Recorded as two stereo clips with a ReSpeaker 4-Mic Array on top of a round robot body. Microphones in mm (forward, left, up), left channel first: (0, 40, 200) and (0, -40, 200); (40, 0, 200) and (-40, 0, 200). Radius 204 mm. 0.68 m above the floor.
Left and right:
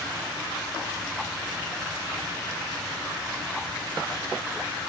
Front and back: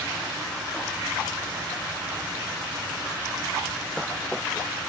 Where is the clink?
I don't hear a clink.